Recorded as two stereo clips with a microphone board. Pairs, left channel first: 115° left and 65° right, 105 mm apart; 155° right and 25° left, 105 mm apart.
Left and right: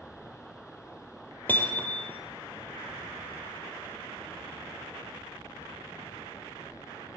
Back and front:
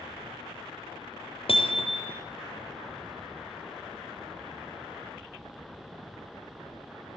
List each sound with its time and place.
1.5 s hammering: 175° right, 3.5 m